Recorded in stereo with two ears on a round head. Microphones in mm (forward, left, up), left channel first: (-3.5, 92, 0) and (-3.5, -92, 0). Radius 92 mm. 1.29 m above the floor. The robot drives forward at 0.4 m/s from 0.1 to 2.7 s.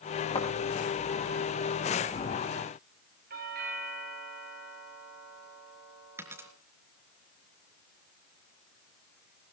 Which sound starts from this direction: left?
A thud, at 0.3 s.